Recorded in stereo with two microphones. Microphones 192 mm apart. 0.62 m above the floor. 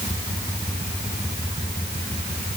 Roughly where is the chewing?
No chewing in this recording.